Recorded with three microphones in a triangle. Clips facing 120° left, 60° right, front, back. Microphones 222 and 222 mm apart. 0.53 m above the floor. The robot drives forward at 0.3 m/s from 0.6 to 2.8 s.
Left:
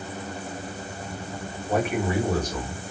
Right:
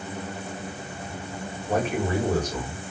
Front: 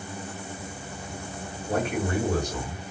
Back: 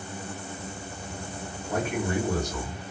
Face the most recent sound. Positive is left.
turn(degrees=60)